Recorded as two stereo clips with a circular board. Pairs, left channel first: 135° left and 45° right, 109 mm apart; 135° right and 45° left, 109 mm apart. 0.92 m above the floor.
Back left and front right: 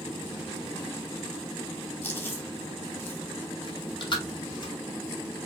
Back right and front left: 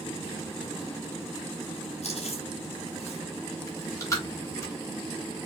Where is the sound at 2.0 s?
155° right, 1.4 m.